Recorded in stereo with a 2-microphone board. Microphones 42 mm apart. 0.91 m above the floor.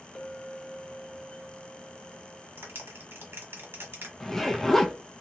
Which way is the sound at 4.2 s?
5° left (ahead or behind).